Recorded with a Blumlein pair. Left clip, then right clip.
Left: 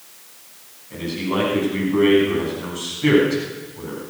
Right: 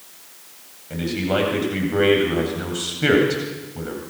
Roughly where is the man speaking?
Ahead right.